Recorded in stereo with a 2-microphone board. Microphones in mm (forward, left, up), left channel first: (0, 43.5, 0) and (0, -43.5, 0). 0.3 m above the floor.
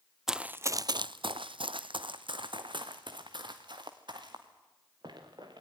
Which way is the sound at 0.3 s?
5° right (ahead or behind).